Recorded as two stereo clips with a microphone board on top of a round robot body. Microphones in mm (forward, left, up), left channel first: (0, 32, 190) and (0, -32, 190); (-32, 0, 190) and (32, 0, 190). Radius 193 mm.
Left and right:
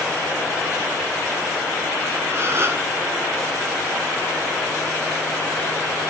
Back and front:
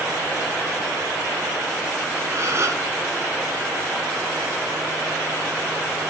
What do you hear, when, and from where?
2.3 s a gasp: 45° right, 1.3 m